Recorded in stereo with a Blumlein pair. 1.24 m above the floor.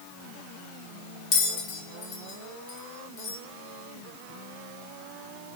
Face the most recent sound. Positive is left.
turn(degrees=35)